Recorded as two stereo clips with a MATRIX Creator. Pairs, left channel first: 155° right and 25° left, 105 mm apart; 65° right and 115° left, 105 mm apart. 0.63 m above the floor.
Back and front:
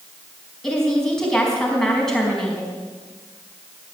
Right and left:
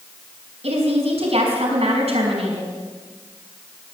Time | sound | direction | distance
0.6 | a woman speaking | 120° left | 5 m